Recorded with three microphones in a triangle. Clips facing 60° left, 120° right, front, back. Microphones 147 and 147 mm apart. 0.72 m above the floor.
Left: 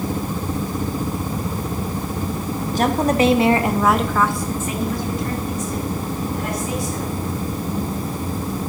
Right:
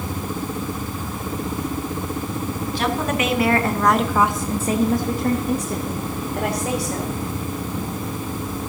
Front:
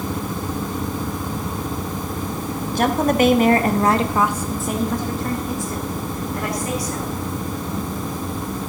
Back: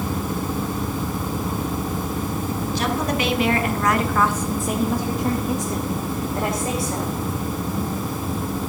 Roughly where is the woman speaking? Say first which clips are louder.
Left 6 dB, front 7 dB; ahead left.